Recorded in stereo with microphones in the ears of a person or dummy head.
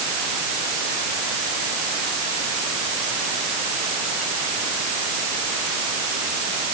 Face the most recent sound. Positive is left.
No sound to turn to.